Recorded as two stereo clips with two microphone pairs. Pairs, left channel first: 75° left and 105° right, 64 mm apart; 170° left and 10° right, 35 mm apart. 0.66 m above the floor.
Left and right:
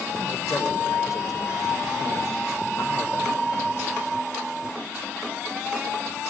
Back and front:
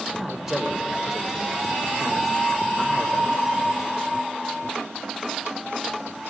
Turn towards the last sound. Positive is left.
turn(degrees=70)